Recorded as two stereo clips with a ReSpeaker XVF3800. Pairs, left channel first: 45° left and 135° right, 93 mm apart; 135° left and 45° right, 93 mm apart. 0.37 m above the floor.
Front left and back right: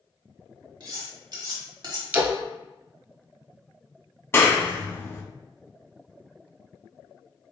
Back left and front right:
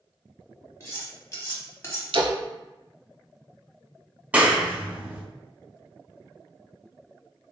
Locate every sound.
0.8 s cutlery clinking: 170° right, 1.2 m
2.1 s a splash: 65° right, 1.0 m
4.3 s a clap: 15° left, 0.7 m